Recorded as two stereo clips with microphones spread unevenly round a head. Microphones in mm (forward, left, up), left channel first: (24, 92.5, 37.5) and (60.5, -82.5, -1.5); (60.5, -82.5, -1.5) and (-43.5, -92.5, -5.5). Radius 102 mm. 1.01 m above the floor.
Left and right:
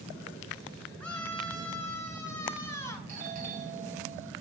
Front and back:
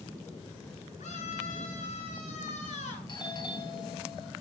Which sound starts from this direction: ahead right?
A doorbell, at 3.1 s.